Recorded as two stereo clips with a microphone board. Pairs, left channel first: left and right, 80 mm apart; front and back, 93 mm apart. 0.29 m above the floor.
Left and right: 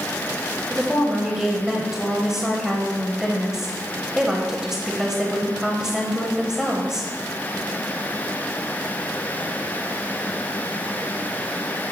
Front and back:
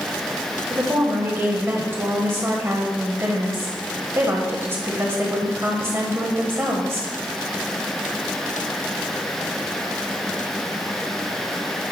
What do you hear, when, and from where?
0.7 s a woman speaking: 165° right, 1.0 m